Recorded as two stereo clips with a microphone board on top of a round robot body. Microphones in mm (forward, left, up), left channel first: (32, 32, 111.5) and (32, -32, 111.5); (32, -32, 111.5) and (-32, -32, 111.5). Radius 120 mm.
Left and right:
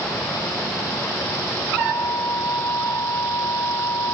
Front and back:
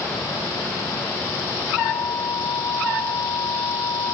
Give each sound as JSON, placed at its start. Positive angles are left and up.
{"t": 1.8, "sound": "a flute", "azimuth_deg": 45}